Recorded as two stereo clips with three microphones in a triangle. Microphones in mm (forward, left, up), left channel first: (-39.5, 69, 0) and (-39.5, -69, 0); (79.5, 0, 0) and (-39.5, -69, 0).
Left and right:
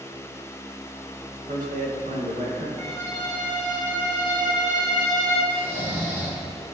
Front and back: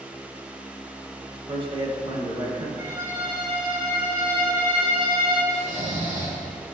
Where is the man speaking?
100° right, 1.7 m.